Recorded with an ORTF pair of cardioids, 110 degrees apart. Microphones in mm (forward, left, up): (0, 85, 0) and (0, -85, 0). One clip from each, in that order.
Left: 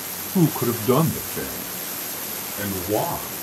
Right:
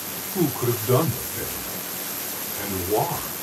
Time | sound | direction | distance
0.3 | a man speaking | 20° left | 0.6 m